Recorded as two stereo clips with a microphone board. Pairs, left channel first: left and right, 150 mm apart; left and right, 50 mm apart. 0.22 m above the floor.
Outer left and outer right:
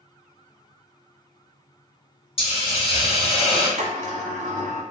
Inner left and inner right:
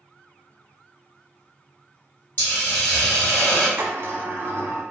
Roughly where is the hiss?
Left.